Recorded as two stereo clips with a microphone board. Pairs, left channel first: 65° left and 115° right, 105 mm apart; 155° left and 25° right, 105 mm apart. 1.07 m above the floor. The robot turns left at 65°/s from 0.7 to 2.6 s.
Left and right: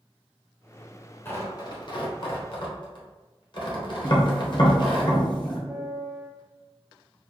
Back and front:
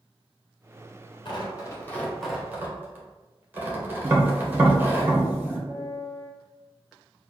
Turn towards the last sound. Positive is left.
turn(degrees=140)